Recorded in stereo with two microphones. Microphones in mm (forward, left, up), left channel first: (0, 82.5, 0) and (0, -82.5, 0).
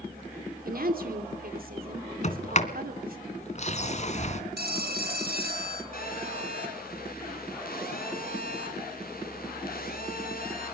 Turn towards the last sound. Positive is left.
turn(degrees=65)  # may be behind; listen again after turning